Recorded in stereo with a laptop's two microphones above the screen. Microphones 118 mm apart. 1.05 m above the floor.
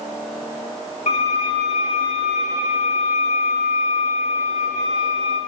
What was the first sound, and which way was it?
A violin, 75° left (ahead or behind).